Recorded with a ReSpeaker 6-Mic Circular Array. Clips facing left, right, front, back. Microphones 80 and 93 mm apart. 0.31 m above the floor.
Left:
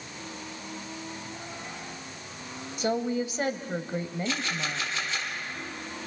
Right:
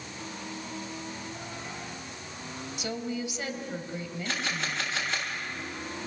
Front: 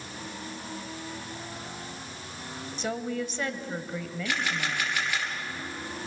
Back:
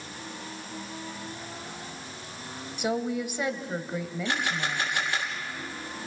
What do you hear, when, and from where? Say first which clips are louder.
2.8 s a woman speaking: left 7 dB, back 3 dB; 110° left, 1.5 m
4.2 s a camera shutter: left 1 dB, even; 120° right, 4 m